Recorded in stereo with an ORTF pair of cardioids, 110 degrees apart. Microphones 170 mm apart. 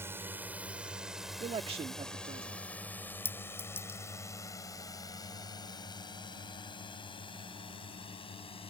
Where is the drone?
15° right; by 8.7 s 35° left.